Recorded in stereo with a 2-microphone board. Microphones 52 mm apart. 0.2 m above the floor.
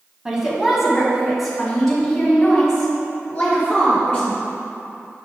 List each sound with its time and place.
0.2 s a woman speaking: 15° right (ahead or behind), 1.6 m; by 4.4 s 15° left (ahead or behind), 4 m